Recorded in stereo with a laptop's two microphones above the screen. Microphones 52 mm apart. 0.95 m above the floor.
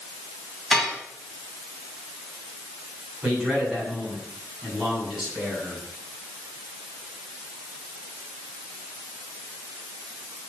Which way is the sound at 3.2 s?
10° right (ahead or behind).